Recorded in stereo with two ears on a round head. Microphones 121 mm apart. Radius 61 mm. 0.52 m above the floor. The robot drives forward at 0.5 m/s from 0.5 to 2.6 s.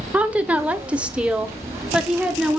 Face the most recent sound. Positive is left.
turn(degrees=-5)  # may be behind; listen again after turning